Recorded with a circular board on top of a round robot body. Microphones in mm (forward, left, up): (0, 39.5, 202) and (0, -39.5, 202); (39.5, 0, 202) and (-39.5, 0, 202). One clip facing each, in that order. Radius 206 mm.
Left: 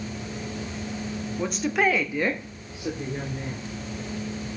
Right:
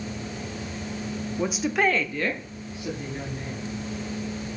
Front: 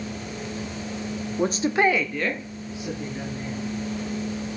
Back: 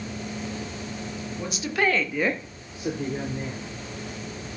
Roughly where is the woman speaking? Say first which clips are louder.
Even, front 5 dB; ahead.